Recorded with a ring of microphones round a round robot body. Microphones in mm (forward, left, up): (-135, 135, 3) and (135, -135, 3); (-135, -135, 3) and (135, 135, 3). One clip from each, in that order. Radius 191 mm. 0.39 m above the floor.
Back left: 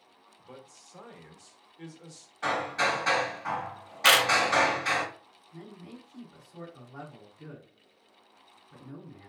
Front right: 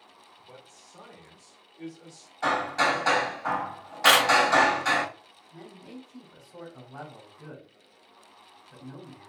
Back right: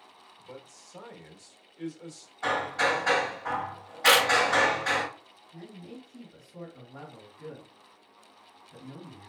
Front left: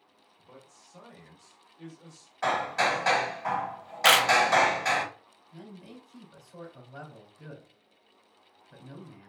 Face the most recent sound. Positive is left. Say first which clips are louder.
# front right 2 dB, back right 2 dB
turn(degrees=30)